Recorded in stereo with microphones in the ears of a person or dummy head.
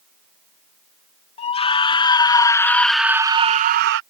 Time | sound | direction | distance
1.4 | a scream | 35° left (ahead or behind) | ?